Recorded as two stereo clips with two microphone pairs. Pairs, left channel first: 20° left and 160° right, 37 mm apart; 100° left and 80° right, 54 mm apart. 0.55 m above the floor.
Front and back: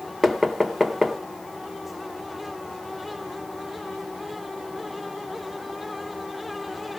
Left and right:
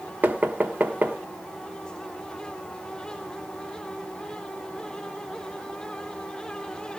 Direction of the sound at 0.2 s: 60° right.